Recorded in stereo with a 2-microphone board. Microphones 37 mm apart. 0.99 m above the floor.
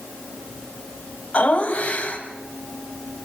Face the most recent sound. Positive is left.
turn(degrees=40)  # may be behind; listen again after turning